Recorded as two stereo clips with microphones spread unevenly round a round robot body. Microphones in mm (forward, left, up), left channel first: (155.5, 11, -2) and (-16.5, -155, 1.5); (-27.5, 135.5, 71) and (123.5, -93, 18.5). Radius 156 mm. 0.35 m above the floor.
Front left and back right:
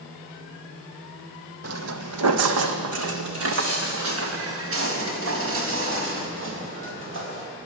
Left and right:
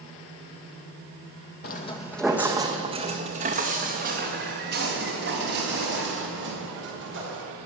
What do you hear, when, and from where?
1.6 s footsteps: 175° left, 0.9 m; by 7.4 s 105° right, 6 m